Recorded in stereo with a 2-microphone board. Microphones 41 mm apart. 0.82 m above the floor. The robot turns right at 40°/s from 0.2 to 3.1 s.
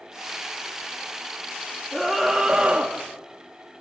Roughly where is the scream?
Behind.